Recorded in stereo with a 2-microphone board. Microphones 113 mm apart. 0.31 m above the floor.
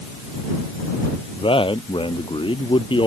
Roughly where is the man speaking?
Left.